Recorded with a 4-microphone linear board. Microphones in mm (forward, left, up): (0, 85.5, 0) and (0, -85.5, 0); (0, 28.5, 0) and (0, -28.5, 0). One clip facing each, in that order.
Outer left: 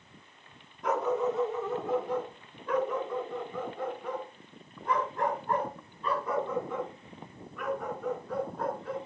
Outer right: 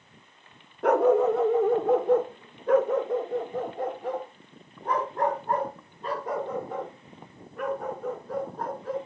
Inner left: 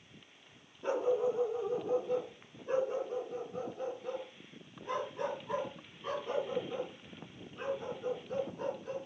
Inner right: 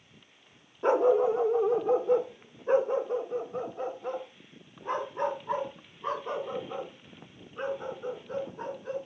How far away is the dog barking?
About 1.0 m.